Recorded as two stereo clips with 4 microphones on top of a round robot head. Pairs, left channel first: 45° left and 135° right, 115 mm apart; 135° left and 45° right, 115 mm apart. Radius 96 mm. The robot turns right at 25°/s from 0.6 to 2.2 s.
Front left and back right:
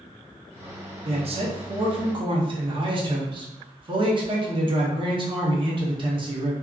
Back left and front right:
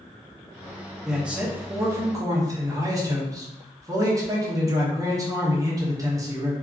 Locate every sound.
1.1 s a man speaking: 130° right, 0.9 m; by 6.5 s 100° right, 0.9 m